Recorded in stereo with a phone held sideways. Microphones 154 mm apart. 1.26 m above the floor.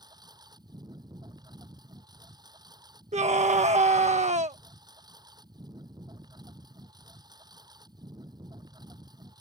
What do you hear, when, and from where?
0.0 s a lawn mower: 25° right (ahead or behind)
3.1 s a scream: 50° right (ahead or behind)